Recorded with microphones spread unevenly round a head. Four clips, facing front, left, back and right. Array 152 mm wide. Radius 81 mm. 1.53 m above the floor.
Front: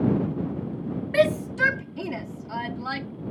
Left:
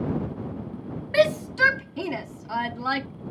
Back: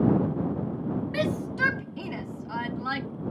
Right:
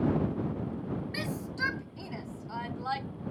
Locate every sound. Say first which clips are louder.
1.1 s a shout: left 15 dB, front 10 dB; 55° left; by 3.1 s 95° left